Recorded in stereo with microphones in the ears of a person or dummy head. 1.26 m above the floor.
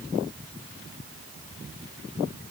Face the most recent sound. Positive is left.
No sound to turn to.